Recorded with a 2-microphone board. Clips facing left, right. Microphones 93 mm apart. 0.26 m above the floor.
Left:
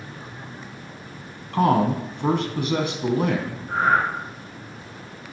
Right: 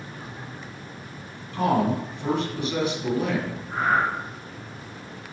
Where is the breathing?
60° left (ahead or behind), 3 m.